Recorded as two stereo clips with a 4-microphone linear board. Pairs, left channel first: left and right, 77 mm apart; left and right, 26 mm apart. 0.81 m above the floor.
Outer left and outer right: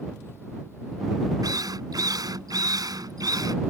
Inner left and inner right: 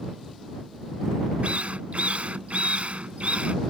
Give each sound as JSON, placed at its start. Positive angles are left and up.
{"t": 1.4, "sound": "a drill", "side_deg": -55}